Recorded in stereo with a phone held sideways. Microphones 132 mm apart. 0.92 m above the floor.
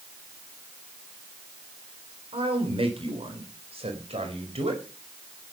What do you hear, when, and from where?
2.3 s a man speaking: 45° right (ahead or behind), 4 m; by 4.8 s 55° right (ahead or behind), 5.5 m